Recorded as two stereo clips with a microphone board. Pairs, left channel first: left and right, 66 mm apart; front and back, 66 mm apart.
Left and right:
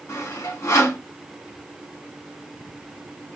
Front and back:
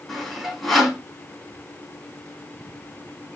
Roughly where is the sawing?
Left.